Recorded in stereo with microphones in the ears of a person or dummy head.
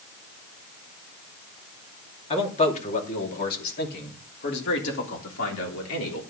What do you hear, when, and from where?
2.3 s a man speaking: 30° left (ahead or behind), 2.5 m; by 6.2 s 75° left (ahead or behind), 3.5 m